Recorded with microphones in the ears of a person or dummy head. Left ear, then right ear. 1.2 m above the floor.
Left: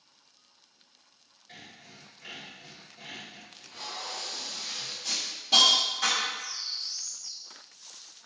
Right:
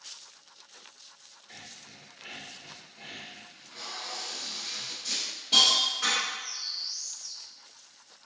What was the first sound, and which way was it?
Sawing, 5° left (ahead or behind).